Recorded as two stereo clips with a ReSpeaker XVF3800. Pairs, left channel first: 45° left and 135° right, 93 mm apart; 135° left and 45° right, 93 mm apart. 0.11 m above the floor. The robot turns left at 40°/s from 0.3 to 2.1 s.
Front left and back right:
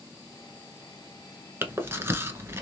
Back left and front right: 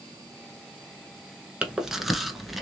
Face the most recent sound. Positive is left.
turn(degrees=-130)